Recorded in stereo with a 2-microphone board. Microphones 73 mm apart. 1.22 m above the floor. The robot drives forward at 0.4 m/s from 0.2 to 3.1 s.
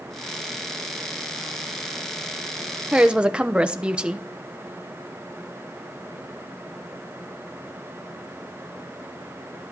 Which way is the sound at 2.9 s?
15° right (ahead or behind).